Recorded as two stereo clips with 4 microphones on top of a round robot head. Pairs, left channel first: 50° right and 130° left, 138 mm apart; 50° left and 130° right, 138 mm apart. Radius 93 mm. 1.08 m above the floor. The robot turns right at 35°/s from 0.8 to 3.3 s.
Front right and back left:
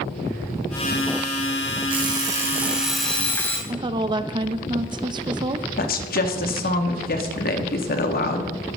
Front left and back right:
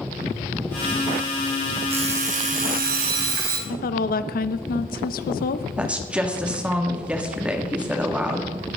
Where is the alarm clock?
175° right, 3.5 m; by 3.6 s 130° right, 3.5 m.